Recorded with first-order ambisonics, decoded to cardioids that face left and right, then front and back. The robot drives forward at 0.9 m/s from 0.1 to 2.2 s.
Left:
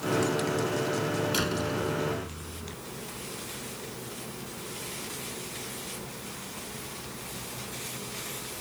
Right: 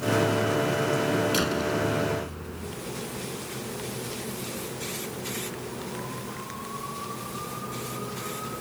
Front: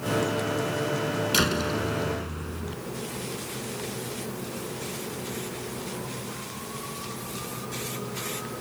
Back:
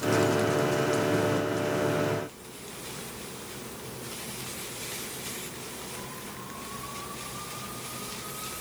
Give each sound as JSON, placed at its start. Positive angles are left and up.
{"t": 1.3, "sound": "a door slam", "azimuth_deg": -5}